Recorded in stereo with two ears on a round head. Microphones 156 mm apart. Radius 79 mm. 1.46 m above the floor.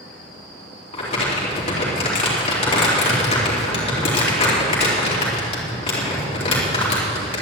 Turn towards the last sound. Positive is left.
turn(degrees=35)  # may be behind; listen again after turning